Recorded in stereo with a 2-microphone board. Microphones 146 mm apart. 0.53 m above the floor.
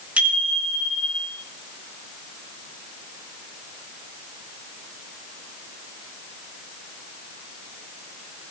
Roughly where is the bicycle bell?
Centre.